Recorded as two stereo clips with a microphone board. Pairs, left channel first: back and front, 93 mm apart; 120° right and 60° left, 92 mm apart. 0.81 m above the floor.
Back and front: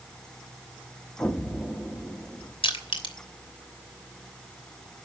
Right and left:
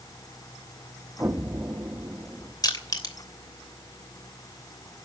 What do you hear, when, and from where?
1.2 s an explosion: 120° left, 1.1 m
2.6 s crushing: 165° right, 3 m